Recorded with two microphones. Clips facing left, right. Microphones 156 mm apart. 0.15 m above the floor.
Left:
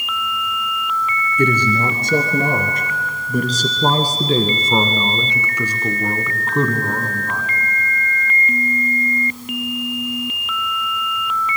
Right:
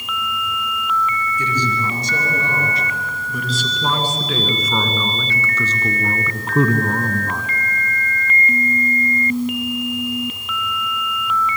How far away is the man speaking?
About 3 m.